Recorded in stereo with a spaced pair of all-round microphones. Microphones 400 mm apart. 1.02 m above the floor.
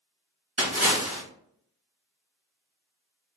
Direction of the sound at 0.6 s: 35° right (ahead or behind).